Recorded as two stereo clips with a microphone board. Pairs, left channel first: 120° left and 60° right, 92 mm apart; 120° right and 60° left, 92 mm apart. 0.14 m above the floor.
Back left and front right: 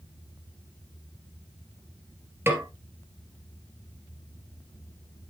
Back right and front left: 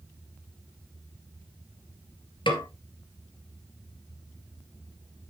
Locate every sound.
2.5 s a snare drum: 120° right, 2.5 m